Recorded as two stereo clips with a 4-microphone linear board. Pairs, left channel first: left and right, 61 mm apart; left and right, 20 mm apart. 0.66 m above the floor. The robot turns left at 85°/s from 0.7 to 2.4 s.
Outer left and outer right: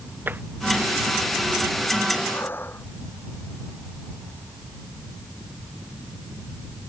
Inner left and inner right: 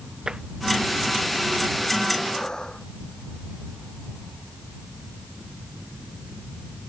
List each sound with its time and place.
0.3 s tapping: 35° right (ahead or behind)
2.3 s breathing: 45° left (ahead or behind); by 2.9 s 35° left (ahead or behind)